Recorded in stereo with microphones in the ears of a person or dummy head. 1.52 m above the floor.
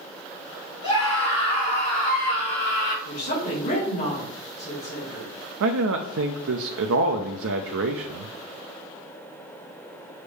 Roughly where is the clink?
No clink in this recording.